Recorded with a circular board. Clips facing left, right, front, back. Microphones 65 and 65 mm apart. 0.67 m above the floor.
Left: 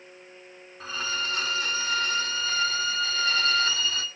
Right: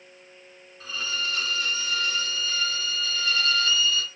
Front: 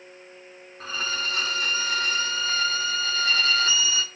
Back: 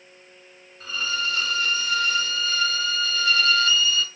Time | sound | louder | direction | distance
0.8 | a violin | left 1 dB, back 2 dB | 40° left | 1.0 m